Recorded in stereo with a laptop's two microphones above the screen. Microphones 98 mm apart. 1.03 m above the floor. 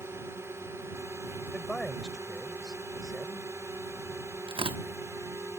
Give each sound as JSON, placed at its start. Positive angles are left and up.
{"t": 0.0, "sound": "a drone", "side_deg": -30}
{"t": 1.5, "sound": "a man speaking", "side_deg": 10}
{"t": 4.5, "sound": "tearing paper", "side_deg": -70}